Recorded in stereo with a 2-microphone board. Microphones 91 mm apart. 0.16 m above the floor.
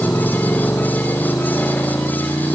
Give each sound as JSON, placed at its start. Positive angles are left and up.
{"t": 0.0, "sound": "a motorcycle", "side_deg": 20}